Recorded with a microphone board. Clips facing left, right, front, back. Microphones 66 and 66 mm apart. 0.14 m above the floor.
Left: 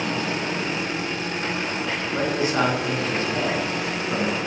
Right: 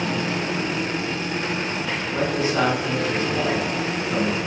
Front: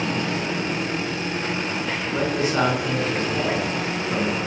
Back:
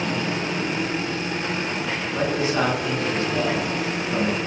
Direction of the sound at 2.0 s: 55° left.